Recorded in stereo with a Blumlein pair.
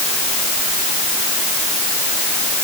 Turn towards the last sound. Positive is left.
No sound to turn to.